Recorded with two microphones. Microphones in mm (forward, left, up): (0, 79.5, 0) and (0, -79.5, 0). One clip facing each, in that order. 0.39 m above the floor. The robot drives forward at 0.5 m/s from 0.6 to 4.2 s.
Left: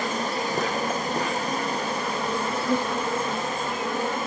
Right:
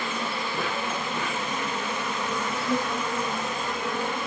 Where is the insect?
40° left (ahead or behind), 3.5 m; by 4.3 s 25° left (ahead or behind), 5 m.